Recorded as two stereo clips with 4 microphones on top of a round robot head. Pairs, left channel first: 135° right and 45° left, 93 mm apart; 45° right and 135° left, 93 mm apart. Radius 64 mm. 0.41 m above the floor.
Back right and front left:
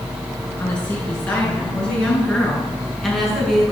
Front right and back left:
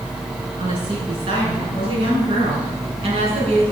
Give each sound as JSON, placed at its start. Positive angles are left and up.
{"t": 0.6, "sound": "a woman speaking", "azimuth_deg": 155, "distance_m": 7.0}